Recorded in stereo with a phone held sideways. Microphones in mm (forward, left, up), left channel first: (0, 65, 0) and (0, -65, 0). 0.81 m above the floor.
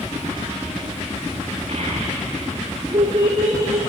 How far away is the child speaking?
About 1.6 m.